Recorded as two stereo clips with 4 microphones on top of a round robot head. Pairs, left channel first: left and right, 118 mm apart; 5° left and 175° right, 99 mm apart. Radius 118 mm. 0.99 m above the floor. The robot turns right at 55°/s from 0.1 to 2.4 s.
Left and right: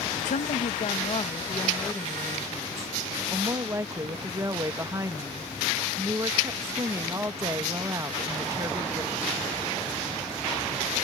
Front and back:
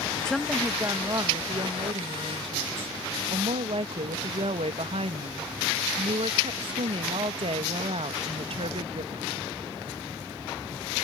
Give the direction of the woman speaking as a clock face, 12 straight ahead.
9 o'clock.